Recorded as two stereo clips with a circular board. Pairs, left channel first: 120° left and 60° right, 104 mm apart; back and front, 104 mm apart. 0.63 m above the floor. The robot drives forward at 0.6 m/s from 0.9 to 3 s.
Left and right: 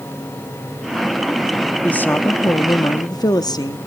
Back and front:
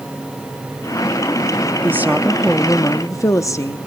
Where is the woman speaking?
50° left, 0.8 m; by 3.8 s 140° left, 0.8 m.